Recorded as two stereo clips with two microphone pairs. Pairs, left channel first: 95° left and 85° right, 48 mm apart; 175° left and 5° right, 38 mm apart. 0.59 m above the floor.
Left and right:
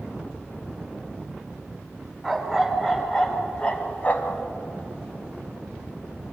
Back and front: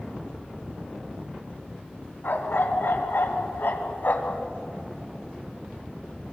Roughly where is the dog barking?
Behind.